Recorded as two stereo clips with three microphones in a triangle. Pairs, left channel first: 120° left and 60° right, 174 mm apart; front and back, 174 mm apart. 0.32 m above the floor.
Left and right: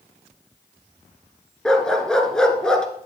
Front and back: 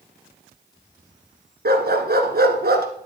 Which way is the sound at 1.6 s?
155° right.